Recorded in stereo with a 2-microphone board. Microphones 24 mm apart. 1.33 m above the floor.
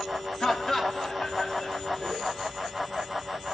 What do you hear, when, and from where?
0.4 s laughter: 30° left (ahead or behind), 2.5 m